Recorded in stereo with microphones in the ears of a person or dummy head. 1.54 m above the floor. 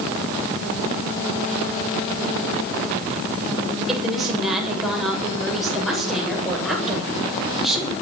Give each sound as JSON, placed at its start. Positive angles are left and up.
{"t": 3.9, "sound": "a woman speaking", "side_deg": 0, "distance_m": 8.0}